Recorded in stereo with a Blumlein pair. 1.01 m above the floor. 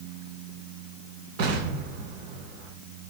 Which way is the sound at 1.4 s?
50° right.